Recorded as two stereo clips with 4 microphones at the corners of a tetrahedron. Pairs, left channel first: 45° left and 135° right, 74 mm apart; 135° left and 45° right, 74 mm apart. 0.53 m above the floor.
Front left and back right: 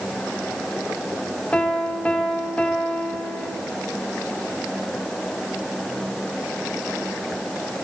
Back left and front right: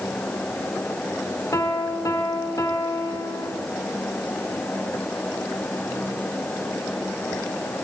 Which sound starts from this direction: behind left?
A piano, at 1.5 s.